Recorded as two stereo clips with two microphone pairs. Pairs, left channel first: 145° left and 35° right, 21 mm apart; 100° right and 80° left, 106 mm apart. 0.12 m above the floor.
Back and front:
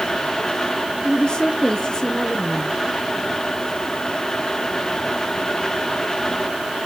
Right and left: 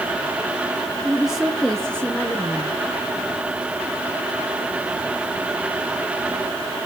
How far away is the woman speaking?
About 1.5 m.